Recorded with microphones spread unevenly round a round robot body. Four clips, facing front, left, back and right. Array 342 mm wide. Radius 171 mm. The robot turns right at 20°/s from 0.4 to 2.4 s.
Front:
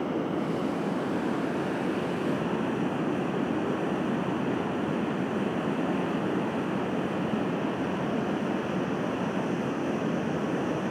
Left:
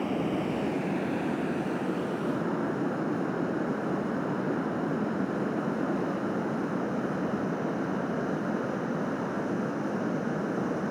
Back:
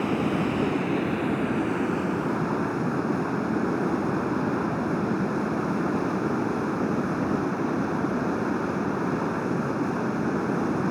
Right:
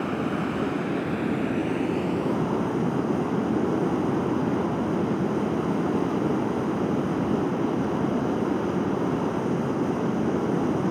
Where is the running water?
160° right, 1.7 m; by 10.9 s 120° right, 1.7 m.